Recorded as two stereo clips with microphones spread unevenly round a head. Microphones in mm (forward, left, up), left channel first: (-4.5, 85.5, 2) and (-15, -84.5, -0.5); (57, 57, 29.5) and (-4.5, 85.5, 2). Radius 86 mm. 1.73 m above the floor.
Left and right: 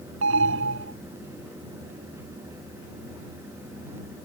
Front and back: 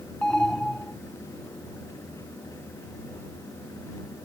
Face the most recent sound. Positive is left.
turn(degrees=-110)